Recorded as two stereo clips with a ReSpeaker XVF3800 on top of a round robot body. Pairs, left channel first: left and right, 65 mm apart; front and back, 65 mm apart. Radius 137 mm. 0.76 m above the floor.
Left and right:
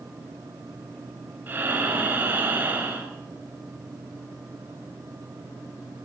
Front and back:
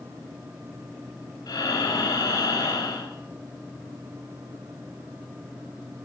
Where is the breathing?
25° right, 2.5 m.